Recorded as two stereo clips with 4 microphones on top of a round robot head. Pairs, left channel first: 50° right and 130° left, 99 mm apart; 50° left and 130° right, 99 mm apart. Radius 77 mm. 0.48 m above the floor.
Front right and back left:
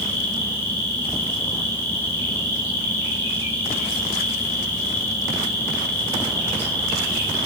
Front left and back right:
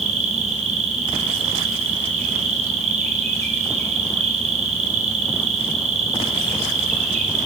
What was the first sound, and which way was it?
An insect, 120° right.